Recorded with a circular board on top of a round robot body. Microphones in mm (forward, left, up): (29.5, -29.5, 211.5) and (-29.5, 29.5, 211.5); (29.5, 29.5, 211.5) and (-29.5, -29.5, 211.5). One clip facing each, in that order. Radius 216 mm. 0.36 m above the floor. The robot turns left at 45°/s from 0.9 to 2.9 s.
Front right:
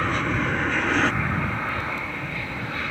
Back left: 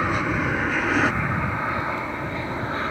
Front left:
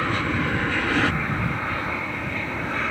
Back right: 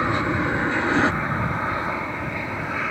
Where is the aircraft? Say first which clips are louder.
Back left 1 dB, back right 2 dB; 160° right; by 2.9 s 145° left.